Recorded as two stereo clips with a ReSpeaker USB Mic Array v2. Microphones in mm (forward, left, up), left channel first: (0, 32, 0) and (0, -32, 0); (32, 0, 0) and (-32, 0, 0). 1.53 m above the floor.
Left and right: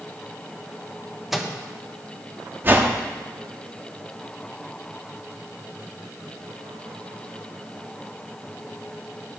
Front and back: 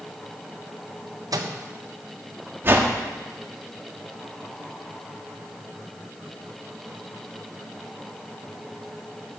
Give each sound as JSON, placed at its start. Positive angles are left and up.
{"t": 1.3, "sound": "a microwave", "azimuth_deg": -175, "distance_m": 1.2}
{"t": 2.6, "sound": "a whoosh", "azimuth_deg": -135, "distance_m": 1.4}